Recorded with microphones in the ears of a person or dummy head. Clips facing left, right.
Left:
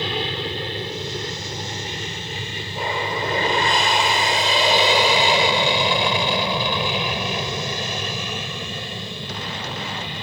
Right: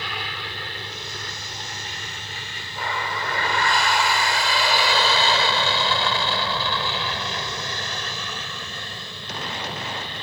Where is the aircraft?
25° left (ahead or behind); by 10.2 s 15° left (ahead or behind).